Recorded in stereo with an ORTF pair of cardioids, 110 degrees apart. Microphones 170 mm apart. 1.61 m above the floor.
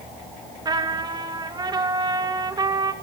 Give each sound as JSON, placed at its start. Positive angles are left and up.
{"t": 0.7, "sound": "a trumpet", "azimuth_deg": -25, "distance_m": 2.5}